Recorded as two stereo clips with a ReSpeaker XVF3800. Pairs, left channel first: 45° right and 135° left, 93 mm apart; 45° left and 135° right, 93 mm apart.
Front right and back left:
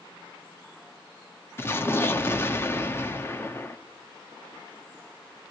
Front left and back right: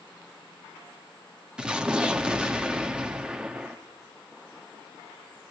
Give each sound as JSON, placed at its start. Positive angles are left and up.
{"t": 1.6, "sound": "an explosion", "azimuth_deg": -70, "distance_m": 1.2}